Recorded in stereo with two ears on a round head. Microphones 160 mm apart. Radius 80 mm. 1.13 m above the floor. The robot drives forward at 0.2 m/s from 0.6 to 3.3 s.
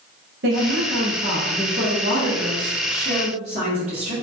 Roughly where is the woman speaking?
Right.